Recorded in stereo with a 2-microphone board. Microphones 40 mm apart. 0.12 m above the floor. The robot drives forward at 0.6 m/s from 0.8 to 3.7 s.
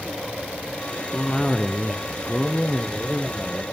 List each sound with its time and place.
1.1 s a cough: 15° left (ahead or behind), 1.2 m; by 3.6 s 10° left (ahead or behind), 1.7 m